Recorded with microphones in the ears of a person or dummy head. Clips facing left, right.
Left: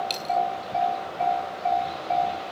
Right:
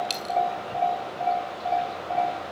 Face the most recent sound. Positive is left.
turn(degrees=-10)  # may be behind; listen again after turning